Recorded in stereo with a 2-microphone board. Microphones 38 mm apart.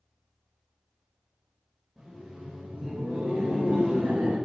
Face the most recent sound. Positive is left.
turn(degrees=-60)  # may be behind; listen again after turning